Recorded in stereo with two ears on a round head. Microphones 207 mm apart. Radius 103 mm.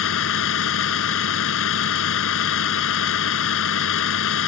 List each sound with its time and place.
0.0 s a vehicle: 60° left (ahead or behind)